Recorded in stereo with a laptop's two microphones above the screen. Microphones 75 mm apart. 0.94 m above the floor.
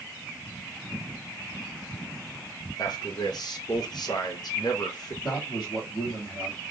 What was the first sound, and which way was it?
A man speaking, 65° left (ahead or behind).